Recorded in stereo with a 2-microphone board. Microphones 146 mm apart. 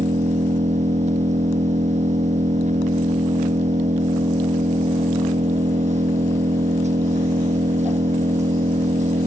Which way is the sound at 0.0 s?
55° right (ahead or behind).